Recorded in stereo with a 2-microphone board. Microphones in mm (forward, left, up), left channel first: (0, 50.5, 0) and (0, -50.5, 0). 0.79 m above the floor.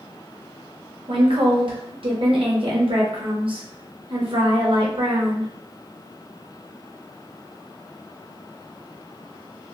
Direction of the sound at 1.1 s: 60° right (ahead or behind).